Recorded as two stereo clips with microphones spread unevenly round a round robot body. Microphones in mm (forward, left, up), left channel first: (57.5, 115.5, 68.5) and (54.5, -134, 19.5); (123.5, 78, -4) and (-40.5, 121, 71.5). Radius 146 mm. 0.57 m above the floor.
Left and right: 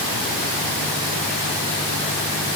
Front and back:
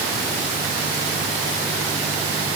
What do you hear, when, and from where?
Only background noise.